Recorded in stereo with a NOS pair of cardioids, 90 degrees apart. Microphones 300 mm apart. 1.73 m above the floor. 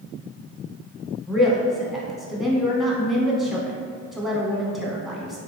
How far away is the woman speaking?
About 0.9 m.